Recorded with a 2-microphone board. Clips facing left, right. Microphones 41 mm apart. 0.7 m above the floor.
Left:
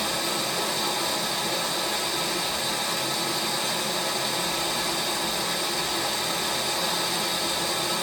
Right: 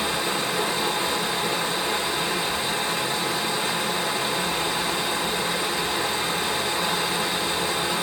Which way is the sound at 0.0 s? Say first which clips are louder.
Right 3 dB; 20° right (ahead or behind).